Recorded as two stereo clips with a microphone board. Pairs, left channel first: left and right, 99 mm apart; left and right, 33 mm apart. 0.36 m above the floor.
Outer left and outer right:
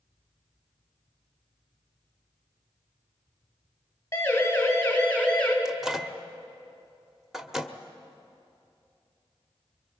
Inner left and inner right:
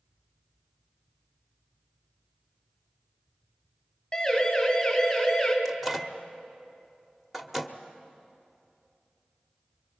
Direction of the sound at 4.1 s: 25° left (ahead or behind).